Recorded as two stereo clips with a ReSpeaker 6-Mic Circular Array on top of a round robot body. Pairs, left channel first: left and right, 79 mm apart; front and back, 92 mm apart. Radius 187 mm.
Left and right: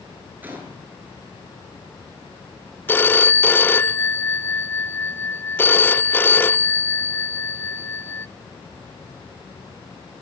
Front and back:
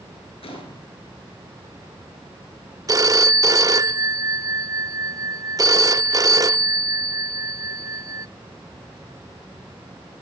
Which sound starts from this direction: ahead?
A gunshot, at 0.4 s.